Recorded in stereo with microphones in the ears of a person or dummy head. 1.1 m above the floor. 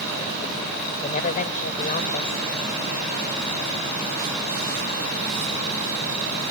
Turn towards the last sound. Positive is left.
turn(degrees=40)  # may be behind; listen again after turning